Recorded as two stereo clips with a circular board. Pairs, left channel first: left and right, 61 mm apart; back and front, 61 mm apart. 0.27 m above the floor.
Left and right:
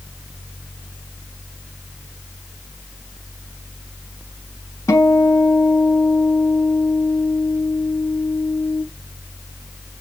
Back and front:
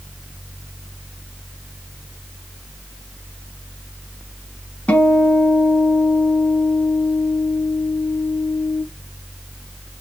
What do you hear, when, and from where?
4.9 s a guitar: 115° left, 1.1 m